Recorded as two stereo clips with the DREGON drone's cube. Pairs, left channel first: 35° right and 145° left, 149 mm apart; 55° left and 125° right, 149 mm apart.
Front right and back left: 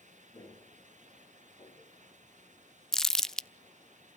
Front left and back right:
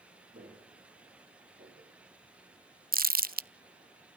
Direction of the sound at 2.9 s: 120° right.